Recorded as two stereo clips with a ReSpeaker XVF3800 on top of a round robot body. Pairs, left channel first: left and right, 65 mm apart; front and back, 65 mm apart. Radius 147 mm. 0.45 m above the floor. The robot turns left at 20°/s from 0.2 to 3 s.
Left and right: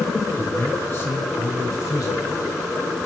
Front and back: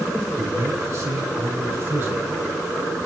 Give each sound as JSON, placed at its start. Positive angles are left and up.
{"t": 0.4, "sound": "a man speaking", "azimuth_deg": 155, "distance_m": 4.5}